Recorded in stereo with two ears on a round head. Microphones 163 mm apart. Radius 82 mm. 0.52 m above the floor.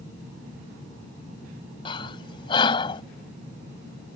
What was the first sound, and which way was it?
Breathing, 25° left (ahead or behind).